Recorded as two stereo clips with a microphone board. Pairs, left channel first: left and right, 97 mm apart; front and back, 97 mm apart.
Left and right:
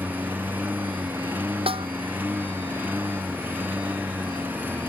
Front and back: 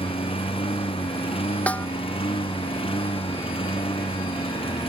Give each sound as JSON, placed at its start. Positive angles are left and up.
{"t": 0.0, "sound": "a lawn mower", "azimuth_deg": -20}
{"t": 1.7, "sound": "a snare drum", "azimuth_deg": -75}